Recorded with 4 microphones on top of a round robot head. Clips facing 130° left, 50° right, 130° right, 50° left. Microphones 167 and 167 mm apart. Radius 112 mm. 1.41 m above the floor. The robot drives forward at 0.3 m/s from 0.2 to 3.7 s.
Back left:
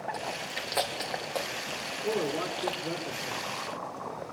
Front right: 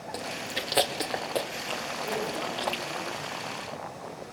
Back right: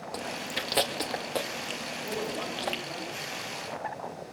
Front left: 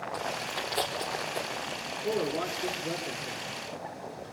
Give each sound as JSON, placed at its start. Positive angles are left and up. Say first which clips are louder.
{"t": 0.1, "sound": "chewing", "louder": "front right 1 dB, back right 1 dB", "azimuth_deg": -110, "distance_m": 3.0}
{"t": 2.0, "sound": "a man speaking", "louder": "back left 4 dB, front left 5 dB", "azimuth_deg": 90, "distance_m": 5.5}